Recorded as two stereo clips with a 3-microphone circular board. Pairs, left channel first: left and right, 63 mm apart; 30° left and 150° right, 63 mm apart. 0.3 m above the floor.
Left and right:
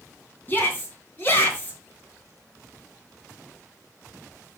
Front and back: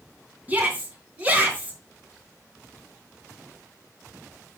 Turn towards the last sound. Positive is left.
turn(degrees=145)